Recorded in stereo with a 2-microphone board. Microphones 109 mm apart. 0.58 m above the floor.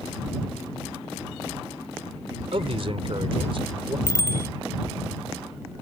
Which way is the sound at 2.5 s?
60° right (ahead or behind).